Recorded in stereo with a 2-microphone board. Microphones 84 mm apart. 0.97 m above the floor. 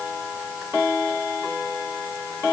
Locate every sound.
Only background noise.